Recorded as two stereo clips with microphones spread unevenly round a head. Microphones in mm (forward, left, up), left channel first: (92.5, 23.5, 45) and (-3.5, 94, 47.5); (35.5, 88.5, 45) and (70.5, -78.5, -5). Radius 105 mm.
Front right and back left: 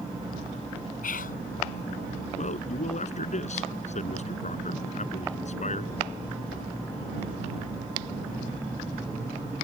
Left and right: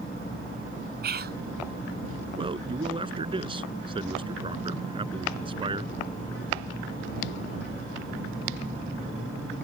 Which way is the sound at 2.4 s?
15° right.